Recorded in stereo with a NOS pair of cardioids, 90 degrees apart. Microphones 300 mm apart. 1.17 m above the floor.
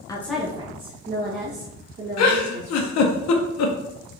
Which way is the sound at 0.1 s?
15° left.